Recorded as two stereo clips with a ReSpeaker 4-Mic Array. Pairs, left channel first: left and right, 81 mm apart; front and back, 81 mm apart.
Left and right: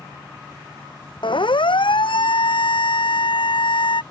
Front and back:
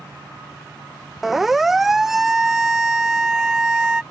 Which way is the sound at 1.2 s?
95° left.